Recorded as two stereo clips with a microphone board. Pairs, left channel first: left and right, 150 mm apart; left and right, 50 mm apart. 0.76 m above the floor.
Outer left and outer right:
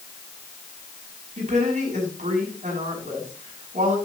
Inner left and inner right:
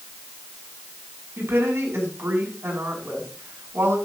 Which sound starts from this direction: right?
A woman speaking, at 1.4 s.